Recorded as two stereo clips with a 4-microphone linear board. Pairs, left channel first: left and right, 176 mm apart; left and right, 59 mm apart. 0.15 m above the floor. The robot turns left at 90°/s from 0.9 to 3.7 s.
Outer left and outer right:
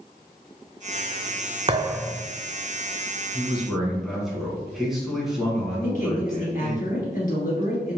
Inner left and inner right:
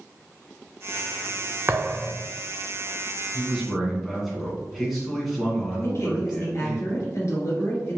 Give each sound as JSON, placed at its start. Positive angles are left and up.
{"t": 1.7, "sound": "a thud", "azimuth_deg": -145, "distance_m": 0.5}
{"t": 3.3, "sound": "a man speaking", "side_deg": -15, "distance_m": 1.4}
{"t": 5.8, "sound": "a man speaking", "side_deg": 55, "distance_m": 1.9}